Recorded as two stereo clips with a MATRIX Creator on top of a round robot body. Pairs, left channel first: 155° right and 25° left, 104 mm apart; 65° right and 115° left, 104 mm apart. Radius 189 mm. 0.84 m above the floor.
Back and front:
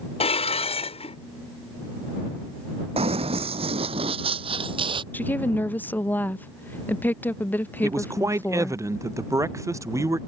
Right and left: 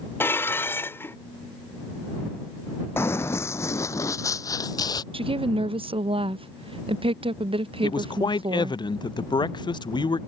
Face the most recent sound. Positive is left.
turn(degrees=-35)